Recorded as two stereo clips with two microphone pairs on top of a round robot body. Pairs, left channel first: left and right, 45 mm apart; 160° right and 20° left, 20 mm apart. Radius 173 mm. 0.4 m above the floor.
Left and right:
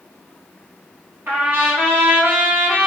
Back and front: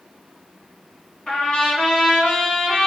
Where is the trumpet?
115° right, 3.5 m.